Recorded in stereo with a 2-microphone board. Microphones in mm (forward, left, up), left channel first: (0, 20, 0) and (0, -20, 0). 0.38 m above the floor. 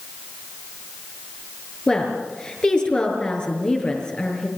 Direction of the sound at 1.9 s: 25° left (ahead or behind).